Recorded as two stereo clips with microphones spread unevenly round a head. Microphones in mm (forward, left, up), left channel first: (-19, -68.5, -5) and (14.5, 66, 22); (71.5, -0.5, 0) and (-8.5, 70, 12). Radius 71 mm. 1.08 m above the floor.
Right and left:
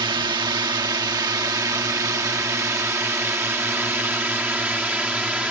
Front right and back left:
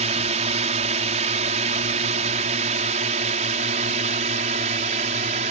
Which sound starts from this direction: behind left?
A drone, at 0.0 s.